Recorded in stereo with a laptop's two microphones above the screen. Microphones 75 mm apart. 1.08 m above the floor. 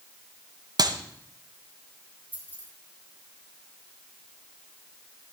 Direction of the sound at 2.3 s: 25° right (ahead or behind).